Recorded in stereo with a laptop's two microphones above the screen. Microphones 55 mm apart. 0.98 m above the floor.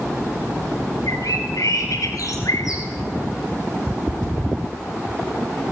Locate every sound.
1.1 s a bird: 75° left (ahead or behind), 6 m